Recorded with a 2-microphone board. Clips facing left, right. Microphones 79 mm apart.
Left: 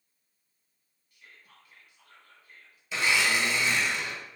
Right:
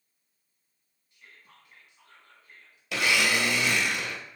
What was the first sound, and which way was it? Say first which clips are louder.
Whispering: right 1 dB; 25° right (ahead or behind).